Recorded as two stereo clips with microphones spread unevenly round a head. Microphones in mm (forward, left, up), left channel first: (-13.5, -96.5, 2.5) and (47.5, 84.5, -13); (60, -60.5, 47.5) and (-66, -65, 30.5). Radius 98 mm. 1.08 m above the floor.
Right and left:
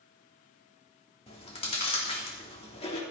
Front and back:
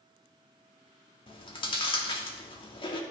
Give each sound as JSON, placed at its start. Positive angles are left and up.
{"t": 1.3, "sound": "chewing", "azimuth_deg": -45, "distance_m": 3.0}